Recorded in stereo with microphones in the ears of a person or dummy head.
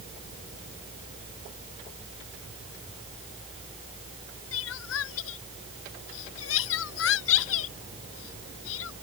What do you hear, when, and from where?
0.0 s a fan: 35° left (ahead or behind)
4.5 s crying: 70° left (ahead or behind)